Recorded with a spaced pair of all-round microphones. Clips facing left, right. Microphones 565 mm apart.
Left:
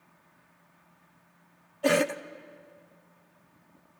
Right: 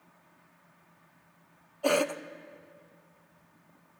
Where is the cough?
45° left (ahead or behind), 0.7 m.